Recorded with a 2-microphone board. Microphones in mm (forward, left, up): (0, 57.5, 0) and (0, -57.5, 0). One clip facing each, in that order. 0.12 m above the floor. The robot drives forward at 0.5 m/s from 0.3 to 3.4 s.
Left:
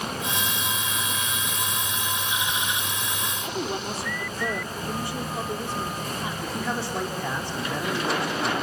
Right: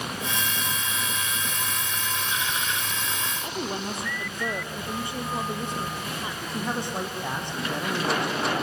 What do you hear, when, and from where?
3.4 s a woman speaking: 20° right (ahead or behind), 3 m
6.4 s a man speaking: 20° right (ahead or behind), 5 m